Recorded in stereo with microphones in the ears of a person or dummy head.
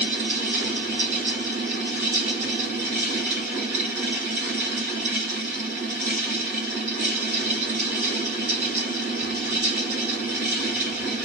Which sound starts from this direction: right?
A fan, at 0.0 s.